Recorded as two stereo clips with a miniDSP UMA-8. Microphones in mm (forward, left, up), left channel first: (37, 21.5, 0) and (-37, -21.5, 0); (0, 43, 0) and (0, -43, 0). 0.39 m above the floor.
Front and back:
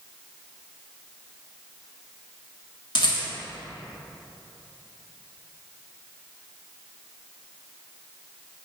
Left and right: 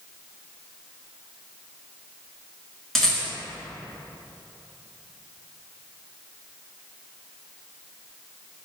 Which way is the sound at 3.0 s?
5° left.